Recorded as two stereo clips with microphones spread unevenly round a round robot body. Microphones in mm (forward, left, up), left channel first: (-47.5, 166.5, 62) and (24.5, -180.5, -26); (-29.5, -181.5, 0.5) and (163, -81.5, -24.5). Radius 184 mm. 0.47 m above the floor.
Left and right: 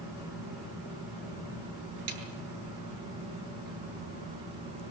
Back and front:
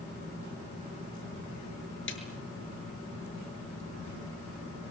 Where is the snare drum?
125° right, 7 m.